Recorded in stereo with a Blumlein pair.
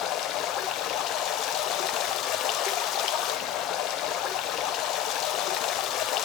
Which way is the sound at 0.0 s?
35° left.